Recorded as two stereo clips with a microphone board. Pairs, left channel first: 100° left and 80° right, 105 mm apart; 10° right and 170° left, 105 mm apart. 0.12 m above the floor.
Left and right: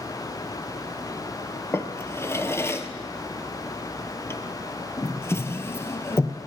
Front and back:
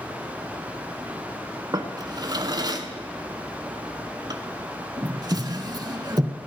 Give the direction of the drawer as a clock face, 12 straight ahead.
7 o'clock.